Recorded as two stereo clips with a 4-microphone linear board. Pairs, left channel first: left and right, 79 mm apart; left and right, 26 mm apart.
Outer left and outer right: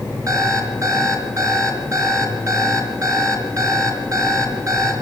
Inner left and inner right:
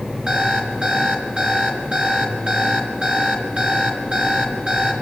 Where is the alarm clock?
45° right (ahead or behind), 4 m.